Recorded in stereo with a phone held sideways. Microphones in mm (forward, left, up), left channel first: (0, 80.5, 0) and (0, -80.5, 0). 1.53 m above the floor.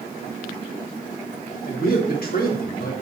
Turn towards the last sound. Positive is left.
turn(degrees=65)  # may be behind; listen again after turning